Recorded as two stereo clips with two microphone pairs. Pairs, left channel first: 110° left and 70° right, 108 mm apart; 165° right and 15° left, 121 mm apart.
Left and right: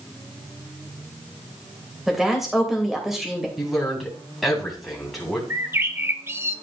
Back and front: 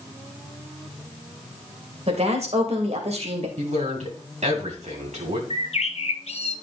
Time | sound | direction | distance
2.1 | a woman speaking | 20° left | 2.5 m
3.6 | a man speaking | 20° left | 3 m
5.5 | a bird | 140° right | 0.8 m